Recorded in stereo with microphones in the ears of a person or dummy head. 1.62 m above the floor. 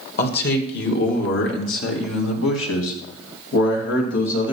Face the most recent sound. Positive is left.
turn(degrees=70)  # may be behind; listen again after turning